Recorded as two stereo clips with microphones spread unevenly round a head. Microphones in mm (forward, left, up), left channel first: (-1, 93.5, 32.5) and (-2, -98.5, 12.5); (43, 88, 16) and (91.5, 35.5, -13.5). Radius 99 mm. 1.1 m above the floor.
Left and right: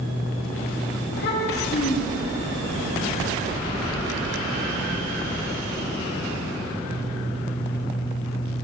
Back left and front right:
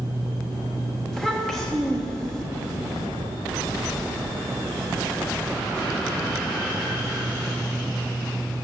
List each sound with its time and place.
1.1 s a child speaking: 50° left, 1.1 m